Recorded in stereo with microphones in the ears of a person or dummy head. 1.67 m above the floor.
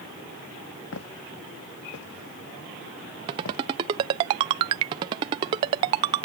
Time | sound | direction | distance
0.9 | footsteps | 85° left | ?
3.3 | a ringtone | 20° right (ahead or behind) | ?